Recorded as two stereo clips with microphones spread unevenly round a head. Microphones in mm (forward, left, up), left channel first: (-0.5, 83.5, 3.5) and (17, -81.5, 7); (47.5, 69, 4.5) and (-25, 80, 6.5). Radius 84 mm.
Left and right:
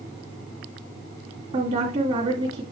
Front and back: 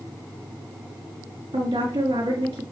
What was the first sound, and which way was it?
A woman speaking, 135° right.